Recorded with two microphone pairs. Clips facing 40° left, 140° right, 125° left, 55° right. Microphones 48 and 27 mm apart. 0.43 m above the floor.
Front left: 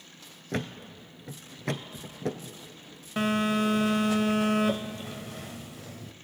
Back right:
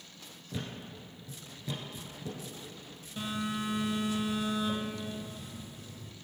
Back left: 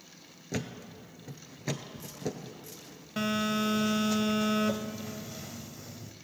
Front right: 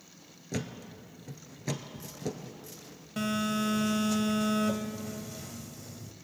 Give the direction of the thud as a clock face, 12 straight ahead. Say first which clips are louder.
Front left 7 dB, even; 10 o'clock.